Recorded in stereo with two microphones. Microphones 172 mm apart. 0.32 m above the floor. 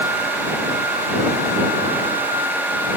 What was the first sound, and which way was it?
Only background noise.